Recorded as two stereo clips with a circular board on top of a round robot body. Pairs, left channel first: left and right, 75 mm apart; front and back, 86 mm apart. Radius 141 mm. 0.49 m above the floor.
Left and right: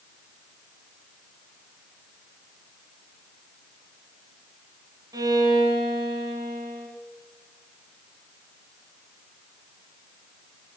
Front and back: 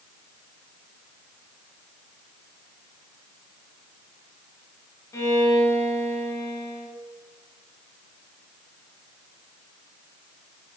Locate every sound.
5.1 s a violin: 55° right, 1.5 m